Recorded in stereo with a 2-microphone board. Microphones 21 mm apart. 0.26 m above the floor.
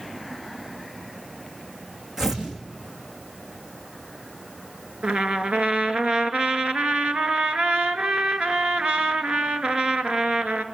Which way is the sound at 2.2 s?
20° right (ahead or behind).